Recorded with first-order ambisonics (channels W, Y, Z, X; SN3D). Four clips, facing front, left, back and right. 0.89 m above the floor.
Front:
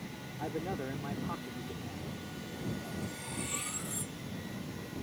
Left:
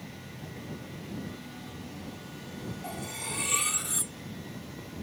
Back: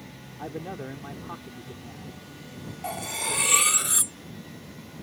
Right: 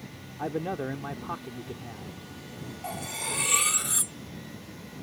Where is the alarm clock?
I don't hear an alarm clock.